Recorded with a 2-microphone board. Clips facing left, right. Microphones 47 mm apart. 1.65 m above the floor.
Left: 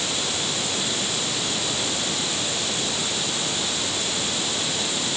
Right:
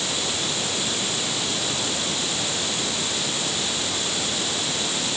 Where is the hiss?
I don't hear a hiss.